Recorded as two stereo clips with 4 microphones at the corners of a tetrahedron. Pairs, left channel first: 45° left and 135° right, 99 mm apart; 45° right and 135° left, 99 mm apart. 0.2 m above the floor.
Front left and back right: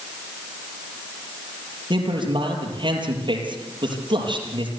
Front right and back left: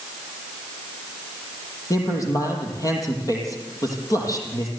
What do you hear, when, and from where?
1.9 s a man speaking: 100° right, 5.5 m